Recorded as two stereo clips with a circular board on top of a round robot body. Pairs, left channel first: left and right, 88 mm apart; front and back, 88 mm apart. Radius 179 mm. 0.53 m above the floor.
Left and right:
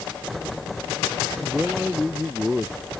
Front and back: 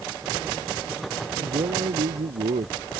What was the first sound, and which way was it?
A man speaking, straight behind.